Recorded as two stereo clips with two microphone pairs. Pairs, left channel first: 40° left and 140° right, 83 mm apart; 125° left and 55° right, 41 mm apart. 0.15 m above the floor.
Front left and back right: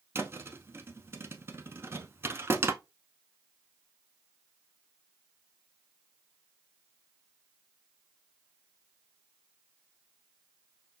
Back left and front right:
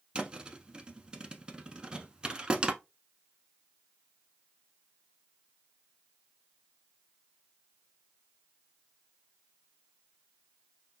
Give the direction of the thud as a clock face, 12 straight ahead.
4 o'clock.